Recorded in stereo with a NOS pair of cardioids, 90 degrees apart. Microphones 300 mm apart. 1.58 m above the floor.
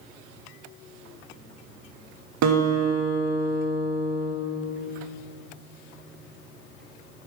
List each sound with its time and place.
2.4 s a guitar: 65° right, 1.4 m